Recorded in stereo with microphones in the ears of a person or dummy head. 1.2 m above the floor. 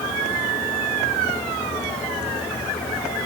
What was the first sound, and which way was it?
Only background noise.